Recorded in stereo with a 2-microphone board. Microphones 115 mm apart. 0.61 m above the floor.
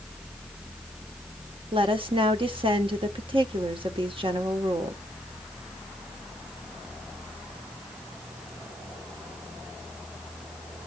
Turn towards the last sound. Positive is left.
turn(degrees=-50)  # may be behind; listen again after turning